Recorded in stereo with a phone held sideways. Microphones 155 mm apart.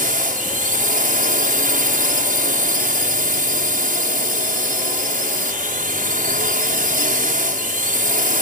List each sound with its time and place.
0.0 s a drone: 65° right (ahead or behind)